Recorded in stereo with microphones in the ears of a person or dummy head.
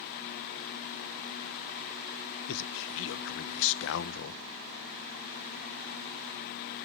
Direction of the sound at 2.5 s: 75° left (ahead or behind).